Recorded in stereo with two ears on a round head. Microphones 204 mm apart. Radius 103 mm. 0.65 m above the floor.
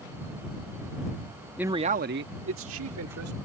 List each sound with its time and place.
1.6 s a man speaking: 5° right (ahead or behind); by 3.4 s 75° right (ahead or behind)